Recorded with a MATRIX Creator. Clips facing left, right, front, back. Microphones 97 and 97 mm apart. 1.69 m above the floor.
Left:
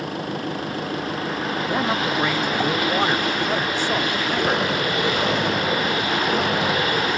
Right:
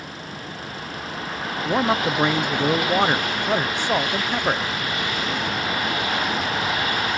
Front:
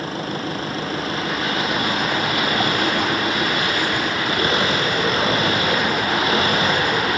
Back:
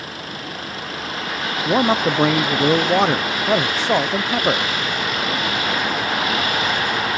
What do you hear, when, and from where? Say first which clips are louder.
0.0 s an engine running: left 9 dB, front 6 dB; 60° left
1.6 s a man speaking: right 4 dB, back 5 dB; 165° right